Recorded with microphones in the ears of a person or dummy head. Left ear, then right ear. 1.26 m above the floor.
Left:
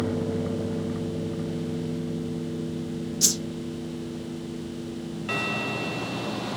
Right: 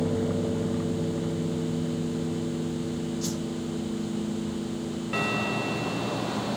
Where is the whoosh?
45° left (ahead or behind), 0.7 m.